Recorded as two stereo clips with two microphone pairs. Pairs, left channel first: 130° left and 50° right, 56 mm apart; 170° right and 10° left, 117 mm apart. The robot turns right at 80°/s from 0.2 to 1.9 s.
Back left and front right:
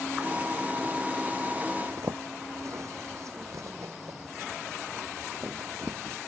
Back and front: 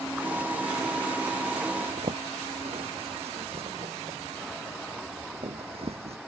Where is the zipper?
30° right; by 6.2 s 20° right.